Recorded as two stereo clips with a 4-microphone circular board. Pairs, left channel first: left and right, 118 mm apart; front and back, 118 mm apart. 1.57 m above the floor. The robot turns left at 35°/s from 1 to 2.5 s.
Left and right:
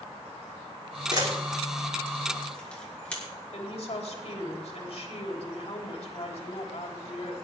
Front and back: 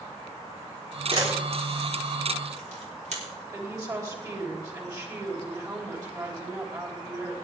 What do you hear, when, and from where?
1.1 s a camera shutter: 140° right, 4 m; by 3.2 s 170° left, 4 m
3.5 s a woman speaking: 120° left, 3.5 m